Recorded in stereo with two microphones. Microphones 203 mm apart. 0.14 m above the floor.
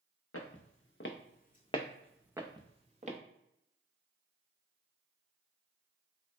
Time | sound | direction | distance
0.3 | footsteps | 80° left | 0.9 m